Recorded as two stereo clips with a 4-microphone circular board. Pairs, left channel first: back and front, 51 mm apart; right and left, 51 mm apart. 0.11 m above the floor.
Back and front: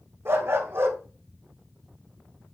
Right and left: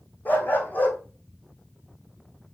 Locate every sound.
0.2 s a dog barking: 35° right, 2.5 m